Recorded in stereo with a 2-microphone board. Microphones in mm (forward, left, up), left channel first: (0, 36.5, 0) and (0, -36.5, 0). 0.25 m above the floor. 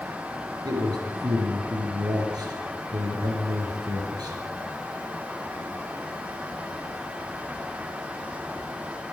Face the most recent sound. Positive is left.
turn(degrees=-65)  # may be behind; listen again after turning